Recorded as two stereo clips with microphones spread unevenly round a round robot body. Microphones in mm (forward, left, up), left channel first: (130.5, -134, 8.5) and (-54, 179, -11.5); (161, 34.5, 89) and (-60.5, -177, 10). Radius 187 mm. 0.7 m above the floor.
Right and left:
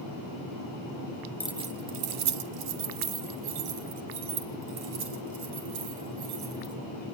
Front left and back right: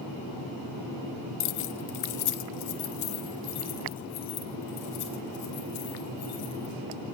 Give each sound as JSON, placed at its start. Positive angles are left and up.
{"t": 1.4, "sound": "keys jangling", "azimuth_deg": 25, "distance_m": 0.6}